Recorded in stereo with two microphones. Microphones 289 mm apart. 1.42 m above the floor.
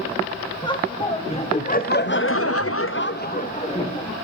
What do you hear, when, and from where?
0.6 s laughter: 15° left (ahead or behind), 1.6 m